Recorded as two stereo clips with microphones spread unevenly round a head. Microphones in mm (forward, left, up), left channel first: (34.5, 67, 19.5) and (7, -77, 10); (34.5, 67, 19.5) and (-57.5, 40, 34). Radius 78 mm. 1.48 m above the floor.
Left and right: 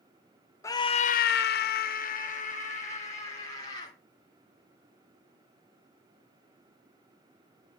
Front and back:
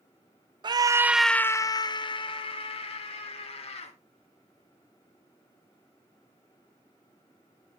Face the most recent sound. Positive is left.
turn(degrees=30)